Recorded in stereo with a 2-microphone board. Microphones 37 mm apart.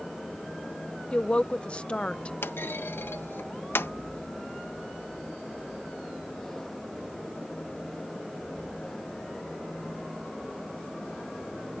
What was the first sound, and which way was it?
A woman speaking, 30° left (ahead or behind).